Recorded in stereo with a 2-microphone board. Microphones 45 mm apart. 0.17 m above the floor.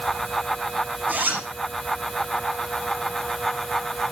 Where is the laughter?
No laughter in this recording.